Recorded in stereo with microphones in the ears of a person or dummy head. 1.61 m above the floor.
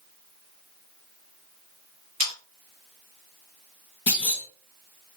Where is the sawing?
40° right (ahead or behind), 1.1 m.